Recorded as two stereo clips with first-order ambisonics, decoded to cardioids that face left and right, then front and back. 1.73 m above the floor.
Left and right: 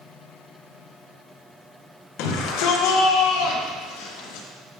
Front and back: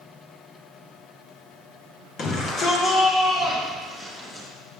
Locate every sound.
2.2 s a shout: 60° left, 2.0 m; by 4.5 s 85° left, 3 m